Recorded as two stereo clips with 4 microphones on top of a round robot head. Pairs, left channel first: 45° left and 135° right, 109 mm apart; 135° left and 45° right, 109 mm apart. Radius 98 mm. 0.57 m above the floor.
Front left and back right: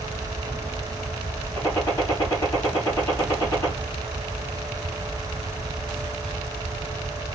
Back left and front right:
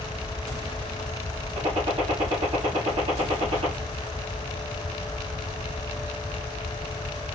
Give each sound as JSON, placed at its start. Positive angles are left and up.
{"t": 1.6, "sound": "a gunshot", "azimuth_deg": -15, "distance_m": 3.5}